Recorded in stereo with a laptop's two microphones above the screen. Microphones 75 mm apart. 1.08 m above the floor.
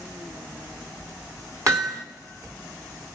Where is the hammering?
45° right (ahead or behind), 3 m.